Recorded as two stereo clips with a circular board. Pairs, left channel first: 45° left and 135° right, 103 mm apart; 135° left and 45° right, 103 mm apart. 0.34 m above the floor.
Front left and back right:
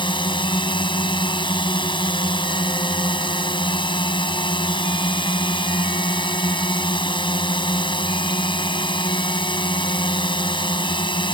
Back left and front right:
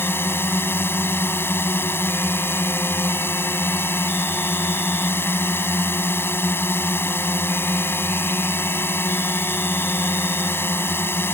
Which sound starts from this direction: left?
A drone, at 0.0 s.